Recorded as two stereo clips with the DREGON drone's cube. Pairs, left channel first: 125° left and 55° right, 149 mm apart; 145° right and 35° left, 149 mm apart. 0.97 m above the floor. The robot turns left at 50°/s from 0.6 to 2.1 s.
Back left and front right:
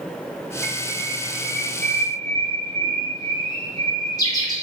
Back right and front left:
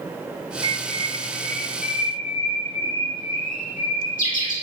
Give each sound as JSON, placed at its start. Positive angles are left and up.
{"t": 0.6, "sound": "a bird", "azimuth_deg": -100, "distance_m": 1.4}